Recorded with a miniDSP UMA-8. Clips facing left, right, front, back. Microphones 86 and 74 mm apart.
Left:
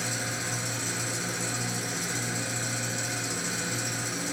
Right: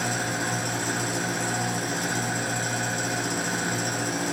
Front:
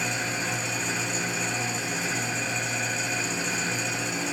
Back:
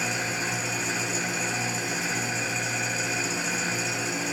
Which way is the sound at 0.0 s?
95° right.